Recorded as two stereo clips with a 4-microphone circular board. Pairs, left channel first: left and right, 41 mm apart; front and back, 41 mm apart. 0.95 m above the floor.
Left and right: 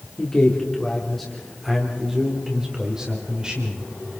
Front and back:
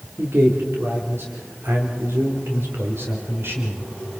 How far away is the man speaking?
About 3 m.